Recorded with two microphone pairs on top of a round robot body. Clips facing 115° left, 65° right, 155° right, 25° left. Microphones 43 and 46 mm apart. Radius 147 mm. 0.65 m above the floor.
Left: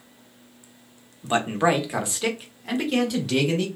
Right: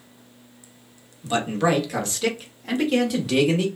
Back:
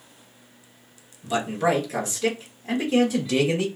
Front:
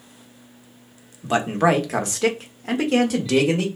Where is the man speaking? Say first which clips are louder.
Left 1 dB, front 4 dB; 60° left, 1.2 m; by 3.7 s 15° left, 1.8 m.